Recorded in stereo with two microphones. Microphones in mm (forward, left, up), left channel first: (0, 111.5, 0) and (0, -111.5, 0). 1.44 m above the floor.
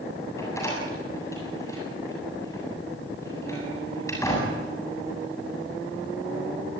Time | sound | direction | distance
0.4 | a door slam | 10° left (ahead or behind) | 7.5 m